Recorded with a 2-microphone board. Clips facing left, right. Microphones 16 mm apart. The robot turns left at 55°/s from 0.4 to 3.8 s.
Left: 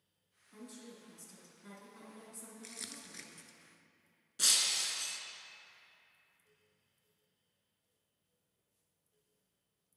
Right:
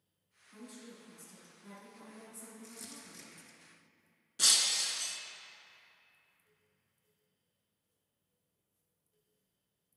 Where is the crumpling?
50° left (ahead or behind), 0.6 m; by 3.6 s 20° left (ahead or behind), 0.6 m.